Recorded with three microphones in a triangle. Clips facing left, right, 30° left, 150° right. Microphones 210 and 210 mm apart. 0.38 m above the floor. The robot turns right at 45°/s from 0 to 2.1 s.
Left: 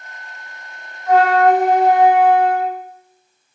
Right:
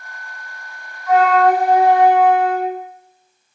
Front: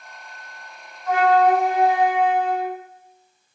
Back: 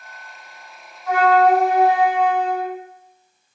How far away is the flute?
About 1.8 m.